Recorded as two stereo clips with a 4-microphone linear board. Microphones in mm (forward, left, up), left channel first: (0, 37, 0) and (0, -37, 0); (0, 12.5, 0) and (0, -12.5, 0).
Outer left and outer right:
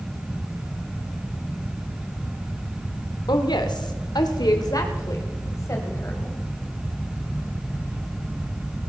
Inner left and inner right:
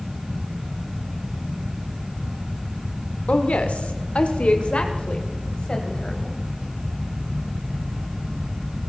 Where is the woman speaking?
70° left (ahead or behind), 1.6 m; by 6.4 s 40° left (ahead or behind), 3.5 m.